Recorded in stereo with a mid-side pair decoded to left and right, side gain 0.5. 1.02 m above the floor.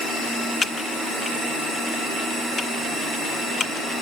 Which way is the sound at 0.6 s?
40° left.